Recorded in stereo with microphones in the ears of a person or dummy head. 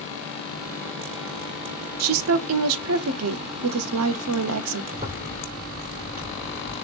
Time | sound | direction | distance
2.0 | a woman speaking | 80° right | 0.7 m
4.9 | a zipper | 40° right (ahead or behind) | 2 m